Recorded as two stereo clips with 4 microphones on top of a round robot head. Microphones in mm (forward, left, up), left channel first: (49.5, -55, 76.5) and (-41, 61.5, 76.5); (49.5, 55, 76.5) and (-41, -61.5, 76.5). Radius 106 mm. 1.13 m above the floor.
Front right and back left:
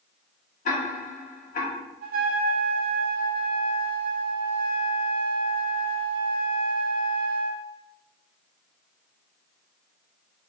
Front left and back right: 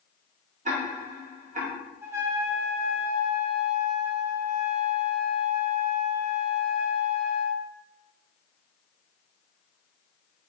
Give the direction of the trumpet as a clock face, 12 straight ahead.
7 o'clock.